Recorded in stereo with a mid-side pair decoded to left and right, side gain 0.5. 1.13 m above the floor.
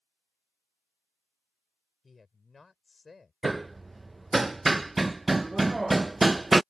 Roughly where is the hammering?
Ahead.